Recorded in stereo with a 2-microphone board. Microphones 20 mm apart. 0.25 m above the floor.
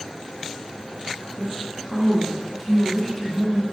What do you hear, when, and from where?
1.4 s a woman speaking: 10° left (ahead or behind), 3 m; by 3.6 s 5° left (ahead or behind), 1.6 m